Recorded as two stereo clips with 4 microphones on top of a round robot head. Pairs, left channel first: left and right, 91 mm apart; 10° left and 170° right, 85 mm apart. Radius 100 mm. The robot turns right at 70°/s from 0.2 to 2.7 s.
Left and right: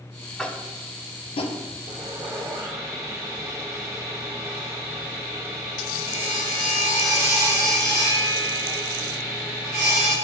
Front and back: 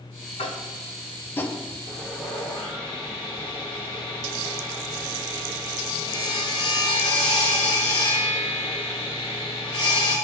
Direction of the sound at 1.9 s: 100° right.